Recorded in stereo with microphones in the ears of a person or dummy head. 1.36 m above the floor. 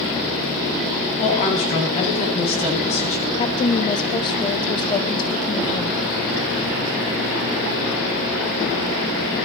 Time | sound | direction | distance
1.2 | a woman speaking | 35° left (ahead or behind) | 8 m
3.4 | a woman speaking | 30° left (ahead or behind) | 0.6 m